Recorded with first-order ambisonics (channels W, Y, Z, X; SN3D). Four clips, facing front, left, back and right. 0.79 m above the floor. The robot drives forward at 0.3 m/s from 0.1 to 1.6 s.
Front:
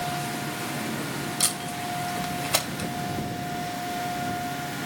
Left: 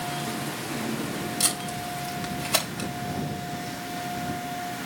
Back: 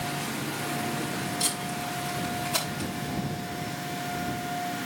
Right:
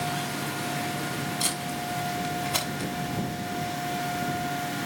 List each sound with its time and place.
1.4 s tape being pulled: 40° left, 4 m